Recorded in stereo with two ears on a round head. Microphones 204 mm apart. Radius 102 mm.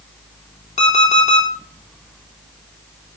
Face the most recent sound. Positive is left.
turn(degrees=30)  # may be behind; listen again after turning